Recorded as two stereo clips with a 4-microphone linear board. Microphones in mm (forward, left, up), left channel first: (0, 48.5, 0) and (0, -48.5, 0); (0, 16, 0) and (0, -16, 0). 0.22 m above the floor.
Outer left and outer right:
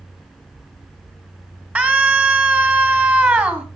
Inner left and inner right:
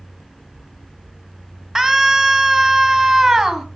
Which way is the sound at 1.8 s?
20° right (ahead or behind).